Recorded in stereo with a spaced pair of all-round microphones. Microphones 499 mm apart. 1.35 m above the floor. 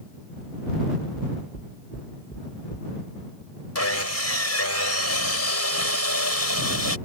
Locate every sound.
1.1 s knocking: 20° left (ahead or behind)
3.8 s sawing: 30° left (ahead or behind)